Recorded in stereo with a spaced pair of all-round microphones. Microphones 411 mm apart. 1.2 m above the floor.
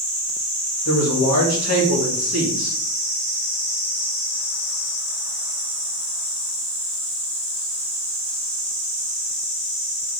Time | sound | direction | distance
0.8 | a man speaking | 40° left (ahead or behind) | 1.7 m